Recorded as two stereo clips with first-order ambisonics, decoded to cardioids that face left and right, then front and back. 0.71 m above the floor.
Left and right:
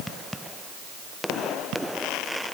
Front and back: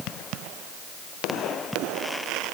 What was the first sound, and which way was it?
Only background noise.